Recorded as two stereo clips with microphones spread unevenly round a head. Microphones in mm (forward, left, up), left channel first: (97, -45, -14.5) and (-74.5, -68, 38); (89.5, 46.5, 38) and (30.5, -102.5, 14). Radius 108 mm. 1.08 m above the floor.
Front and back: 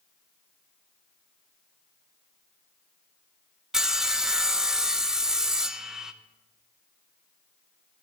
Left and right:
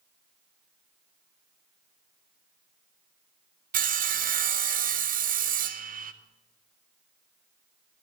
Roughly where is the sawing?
Right.